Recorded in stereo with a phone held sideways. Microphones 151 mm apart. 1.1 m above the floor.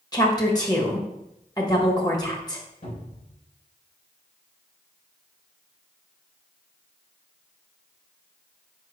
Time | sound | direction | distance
0.1 | a woman speaking | 25° left (ahead or behind) | 1.6 m
2.8 | a cupboard door | 85° left | 3.5 m